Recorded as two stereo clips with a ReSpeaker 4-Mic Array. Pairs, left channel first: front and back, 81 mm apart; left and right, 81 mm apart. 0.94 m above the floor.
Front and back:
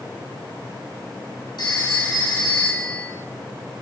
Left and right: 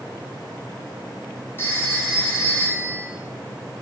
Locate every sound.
1.6 s a phone ringing: 25° left, 5.5 m